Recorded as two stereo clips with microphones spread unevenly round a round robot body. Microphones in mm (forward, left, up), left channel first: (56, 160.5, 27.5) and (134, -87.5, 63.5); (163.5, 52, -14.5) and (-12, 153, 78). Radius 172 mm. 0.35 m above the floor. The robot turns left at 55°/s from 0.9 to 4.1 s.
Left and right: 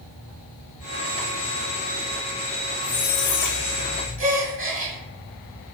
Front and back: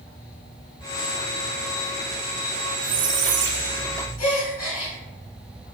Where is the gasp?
40° right, 1.8 m.